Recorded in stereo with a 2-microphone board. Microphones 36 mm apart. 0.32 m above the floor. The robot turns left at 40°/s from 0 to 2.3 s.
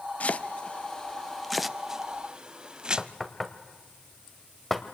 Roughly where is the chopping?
Left.